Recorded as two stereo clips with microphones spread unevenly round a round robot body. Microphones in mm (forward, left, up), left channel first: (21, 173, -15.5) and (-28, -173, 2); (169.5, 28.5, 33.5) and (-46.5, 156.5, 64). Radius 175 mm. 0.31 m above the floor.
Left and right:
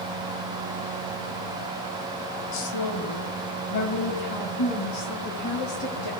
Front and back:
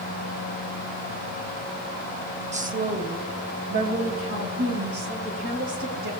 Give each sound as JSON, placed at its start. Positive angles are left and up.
{"t": 2.5, "sound": "a woman speaking", "azimuth_deg": 85, "distance_m": 1.6}